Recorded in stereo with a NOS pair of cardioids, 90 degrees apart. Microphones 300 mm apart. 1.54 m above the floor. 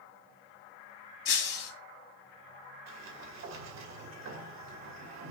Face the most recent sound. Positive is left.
turn(degrees=-70)